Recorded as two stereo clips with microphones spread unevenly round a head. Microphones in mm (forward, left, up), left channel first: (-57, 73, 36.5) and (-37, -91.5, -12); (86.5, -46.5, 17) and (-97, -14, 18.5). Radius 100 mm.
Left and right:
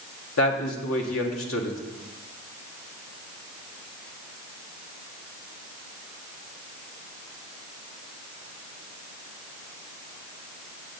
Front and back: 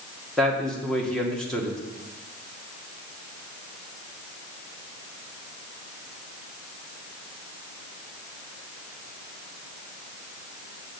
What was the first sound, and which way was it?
A man speaking, 75° left.